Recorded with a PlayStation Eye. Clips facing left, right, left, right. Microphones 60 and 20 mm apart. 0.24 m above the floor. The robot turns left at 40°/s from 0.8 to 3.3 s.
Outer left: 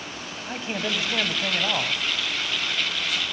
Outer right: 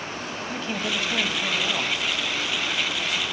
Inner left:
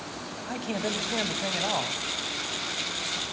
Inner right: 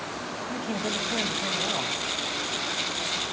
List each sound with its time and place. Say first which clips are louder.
0.5 s a man speaking: outer left 1 dB, even; 115° left, 1.1 m; by 2.0 s 70° left, 1.1 m